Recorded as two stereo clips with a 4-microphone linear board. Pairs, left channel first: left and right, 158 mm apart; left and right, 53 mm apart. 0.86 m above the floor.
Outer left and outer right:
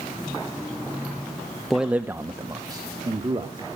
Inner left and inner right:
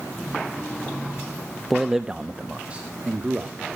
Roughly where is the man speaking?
Centre.